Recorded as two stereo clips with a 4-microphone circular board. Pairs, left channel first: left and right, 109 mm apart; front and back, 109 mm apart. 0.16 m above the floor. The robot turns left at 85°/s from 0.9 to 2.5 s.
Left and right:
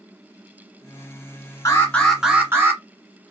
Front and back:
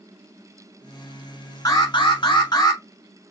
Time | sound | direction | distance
1.6 | an alarm | 40° left | 1.5 m